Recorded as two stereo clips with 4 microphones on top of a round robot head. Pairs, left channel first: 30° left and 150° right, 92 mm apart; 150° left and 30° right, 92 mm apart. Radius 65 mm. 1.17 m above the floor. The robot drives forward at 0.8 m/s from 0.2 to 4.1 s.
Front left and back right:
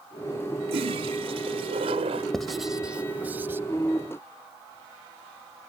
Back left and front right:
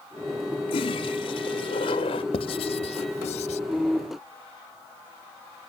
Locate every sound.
0.7 s a toilet flushing: straight behind
2.3 s writing: 115° left; by 3.6 s 140° left